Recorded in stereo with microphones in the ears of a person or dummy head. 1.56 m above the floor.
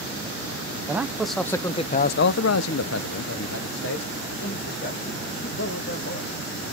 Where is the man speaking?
10° right (ahead or behind), 1.0 m; by 6.4 s 55° left (ahead or behind), 3 m.